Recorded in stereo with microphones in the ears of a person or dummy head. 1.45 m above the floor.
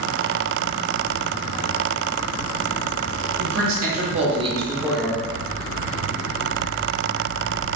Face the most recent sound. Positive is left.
turn(degrees=10)  # may be behind; listen again after turning